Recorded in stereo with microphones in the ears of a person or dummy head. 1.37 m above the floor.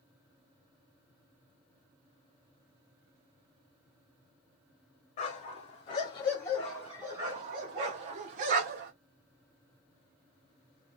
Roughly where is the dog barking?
Left.